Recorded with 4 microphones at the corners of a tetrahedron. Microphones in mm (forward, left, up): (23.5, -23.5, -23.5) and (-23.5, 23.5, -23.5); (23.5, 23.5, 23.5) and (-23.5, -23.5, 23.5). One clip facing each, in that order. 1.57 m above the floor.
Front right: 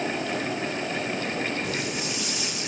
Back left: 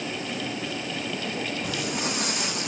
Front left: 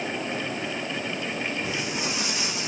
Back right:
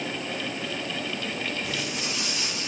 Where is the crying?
No crying in this recording.